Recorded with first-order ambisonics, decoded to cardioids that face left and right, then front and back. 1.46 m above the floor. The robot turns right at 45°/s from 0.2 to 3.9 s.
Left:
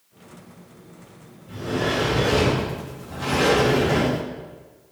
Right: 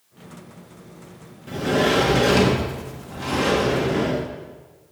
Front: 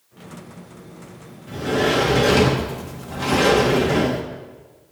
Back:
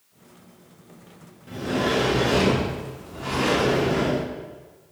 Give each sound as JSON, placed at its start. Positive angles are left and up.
{"t": 1.5, "sound": "a sliding door", "azimuth_deg": -80, "distance_m": 2.0}